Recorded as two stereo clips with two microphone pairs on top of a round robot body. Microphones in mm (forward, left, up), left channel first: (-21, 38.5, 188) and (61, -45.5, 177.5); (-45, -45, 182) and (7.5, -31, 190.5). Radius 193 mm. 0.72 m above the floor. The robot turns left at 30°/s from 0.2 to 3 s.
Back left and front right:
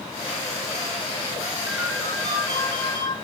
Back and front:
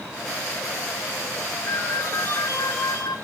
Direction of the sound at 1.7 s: 125° right.